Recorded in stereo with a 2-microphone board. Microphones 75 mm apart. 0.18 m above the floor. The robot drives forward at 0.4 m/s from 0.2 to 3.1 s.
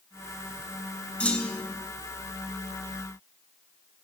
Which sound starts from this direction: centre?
A clunk, at 1.2 s.